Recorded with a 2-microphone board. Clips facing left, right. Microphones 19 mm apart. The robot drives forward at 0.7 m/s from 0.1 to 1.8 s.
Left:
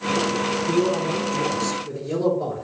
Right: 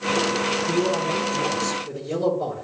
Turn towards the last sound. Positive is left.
turn(degrees=10)  # may be behind; listen again after turning